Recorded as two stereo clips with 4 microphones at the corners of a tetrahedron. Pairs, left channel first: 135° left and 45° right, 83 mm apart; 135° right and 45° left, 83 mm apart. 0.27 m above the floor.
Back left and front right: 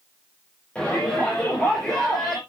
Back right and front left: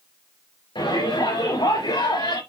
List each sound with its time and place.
0.8 s a shout: 150° right, 6.5 m; by 2.4 s 140° right, 6 m